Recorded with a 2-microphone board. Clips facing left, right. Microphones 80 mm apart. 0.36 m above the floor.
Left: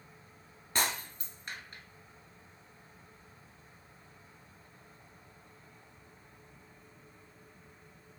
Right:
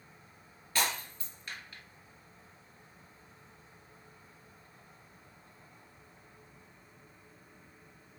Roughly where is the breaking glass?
Left.